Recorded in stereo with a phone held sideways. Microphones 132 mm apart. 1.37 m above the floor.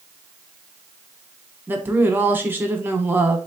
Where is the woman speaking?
15° right (ahead or behind), 0.9 m.